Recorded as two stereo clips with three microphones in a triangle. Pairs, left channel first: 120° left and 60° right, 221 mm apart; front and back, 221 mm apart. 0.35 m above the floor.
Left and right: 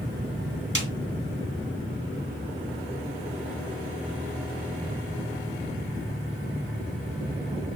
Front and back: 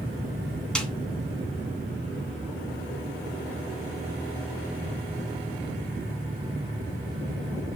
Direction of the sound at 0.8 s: 85° right.